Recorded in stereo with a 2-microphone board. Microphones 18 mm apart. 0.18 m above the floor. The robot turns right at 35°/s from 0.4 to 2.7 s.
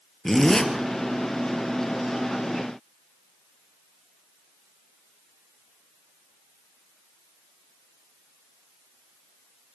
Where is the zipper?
35° left (ahead or behind), 3 m; by 0.7 s 45° left (ahead or behind), 3 m.